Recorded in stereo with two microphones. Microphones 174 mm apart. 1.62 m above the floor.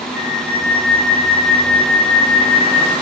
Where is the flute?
75° right (ahead or behind), 2.5 m.